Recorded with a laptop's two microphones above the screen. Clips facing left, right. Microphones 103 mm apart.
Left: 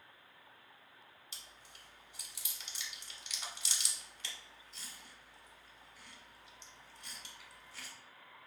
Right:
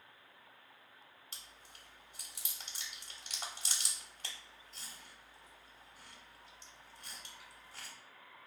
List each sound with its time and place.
1.3 s chewing: 45° right (ahead or behind), 0.9 m